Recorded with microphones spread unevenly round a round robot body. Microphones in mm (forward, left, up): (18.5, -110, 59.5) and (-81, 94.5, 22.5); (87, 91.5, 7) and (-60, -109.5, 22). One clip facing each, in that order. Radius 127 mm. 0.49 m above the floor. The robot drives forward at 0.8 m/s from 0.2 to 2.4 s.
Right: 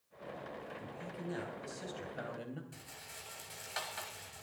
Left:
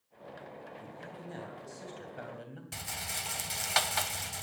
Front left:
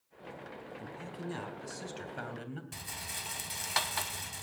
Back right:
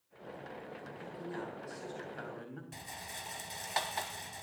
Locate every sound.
0.8 s a man speaking: 20° left, 4 m; by 2.6 s 25° left, 3 m
2.7 s a rattle: 130° left, 0.7 m